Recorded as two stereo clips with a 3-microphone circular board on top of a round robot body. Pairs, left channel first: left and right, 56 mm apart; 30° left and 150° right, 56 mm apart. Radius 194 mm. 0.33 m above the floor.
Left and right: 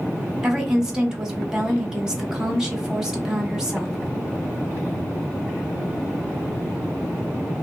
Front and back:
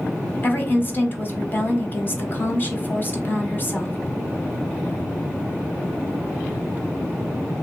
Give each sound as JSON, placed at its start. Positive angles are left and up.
{"t": 0.4, "sound": "a woman speaking", "azimuth_deg": -15, "distance_m": 1.2}